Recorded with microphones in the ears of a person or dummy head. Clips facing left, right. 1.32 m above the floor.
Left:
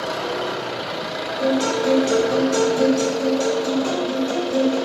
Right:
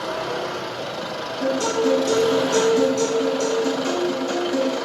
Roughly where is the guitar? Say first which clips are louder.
Left 1 dB; centre.